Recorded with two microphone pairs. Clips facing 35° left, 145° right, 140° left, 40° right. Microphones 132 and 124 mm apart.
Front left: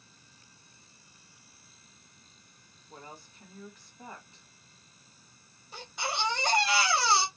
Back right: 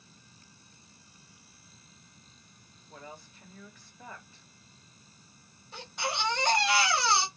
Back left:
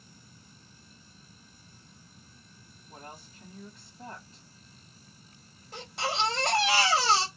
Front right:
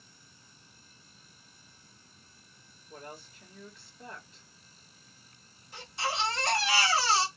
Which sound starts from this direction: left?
A woman speaking, at 2.9 s.